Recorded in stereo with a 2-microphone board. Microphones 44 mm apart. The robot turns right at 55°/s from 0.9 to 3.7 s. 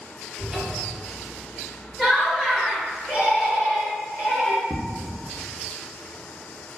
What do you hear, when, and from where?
0.4 s a cupboard door: 25° right (ahead or behind), 1.4 m; by 1.0 s 20° right (ahead or behind), 1.4 m
2.0 s laughter: 20° left, 1.6 m; by 4.6 s 115° left, 1.6 m
4.7 s footsteps: 25° right (ahead or behind), 0.8 m